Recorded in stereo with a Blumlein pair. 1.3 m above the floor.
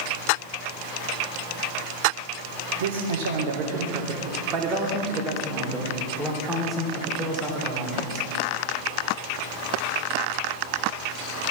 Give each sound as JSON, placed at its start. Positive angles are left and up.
{"t": 2.8, "sound": "a man speaking", "azimuth_deg": -60, "distance_m": 1.7}